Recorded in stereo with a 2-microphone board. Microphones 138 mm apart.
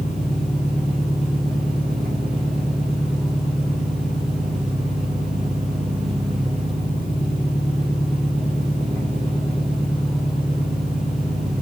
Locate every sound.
0.0 s an engine running: 35° right (ahead or behind), 3.5 m